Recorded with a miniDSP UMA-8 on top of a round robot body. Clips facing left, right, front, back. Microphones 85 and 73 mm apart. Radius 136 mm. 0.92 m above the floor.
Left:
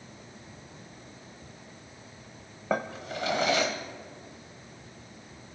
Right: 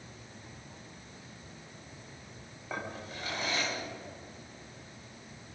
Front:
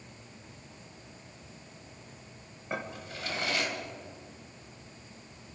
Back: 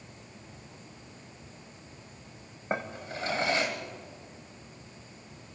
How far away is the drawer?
About 1.2 m.